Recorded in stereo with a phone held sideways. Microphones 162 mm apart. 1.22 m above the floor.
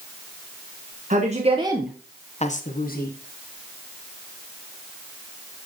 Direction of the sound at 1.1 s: 50° right (ahead or behind).